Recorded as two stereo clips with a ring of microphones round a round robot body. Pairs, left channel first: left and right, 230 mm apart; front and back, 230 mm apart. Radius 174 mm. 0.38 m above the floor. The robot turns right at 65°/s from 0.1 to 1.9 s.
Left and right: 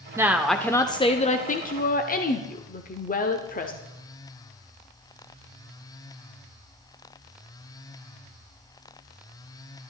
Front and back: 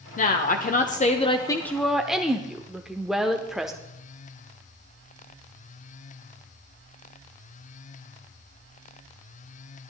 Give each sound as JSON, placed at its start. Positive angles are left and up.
{"t": 0.2, "sound": "a woman speaking", "azimuth_deg": -20, "distance_m": 0.9}